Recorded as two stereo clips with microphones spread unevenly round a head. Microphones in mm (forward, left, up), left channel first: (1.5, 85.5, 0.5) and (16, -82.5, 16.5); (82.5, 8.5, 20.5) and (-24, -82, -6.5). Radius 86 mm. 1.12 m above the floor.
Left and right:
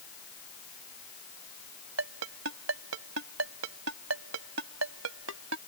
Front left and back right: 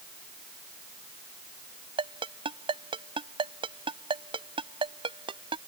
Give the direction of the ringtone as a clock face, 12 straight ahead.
3 o'clock.